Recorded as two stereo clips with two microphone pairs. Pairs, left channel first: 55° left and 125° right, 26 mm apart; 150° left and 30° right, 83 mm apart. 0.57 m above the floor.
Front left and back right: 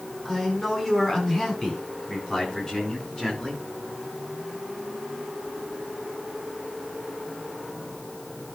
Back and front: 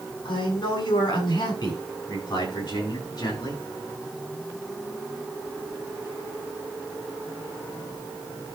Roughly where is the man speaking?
Behind left.